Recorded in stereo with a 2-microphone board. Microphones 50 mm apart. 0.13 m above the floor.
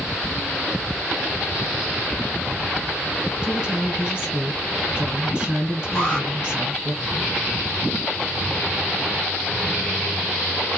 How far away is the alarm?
About 2.5 m.